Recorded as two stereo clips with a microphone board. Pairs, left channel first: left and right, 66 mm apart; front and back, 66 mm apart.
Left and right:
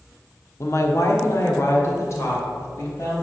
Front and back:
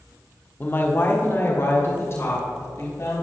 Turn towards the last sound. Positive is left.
turn(degrees=45)